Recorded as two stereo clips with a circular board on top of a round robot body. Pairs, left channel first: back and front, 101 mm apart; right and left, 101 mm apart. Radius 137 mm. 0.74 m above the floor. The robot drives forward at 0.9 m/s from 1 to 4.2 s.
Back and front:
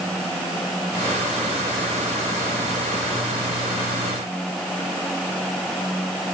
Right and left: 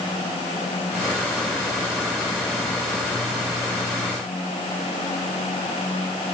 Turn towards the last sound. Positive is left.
No sound to turn to.